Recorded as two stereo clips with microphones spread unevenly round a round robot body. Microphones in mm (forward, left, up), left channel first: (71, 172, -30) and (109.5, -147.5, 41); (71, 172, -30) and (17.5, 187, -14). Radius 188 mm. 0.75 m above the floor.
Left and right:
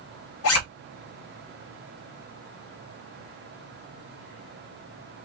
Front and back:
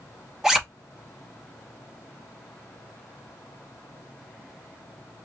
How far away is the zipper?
About 1.2 m.